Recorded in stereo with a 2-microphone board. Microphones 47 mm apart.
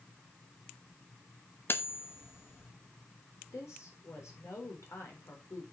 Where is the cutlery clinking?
50° left (ahead or behind), 0.9 m.